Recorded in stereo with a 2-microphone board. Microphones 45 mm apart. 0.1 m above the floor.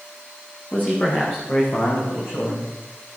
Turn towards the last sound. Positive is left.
turn(degrees=60)  # may be behind; listen again after turning